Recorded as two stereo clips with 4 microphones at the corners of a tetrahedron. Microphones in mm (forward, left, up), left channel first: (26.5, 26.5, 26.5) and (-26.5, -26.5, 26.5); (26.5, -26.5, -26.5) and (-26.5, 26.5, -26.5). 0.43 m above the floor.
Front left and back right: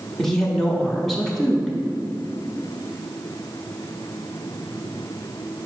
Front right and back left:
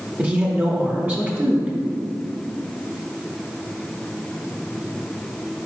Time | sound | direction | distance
0.2 | a woman speaking | 125° left | 0.8 m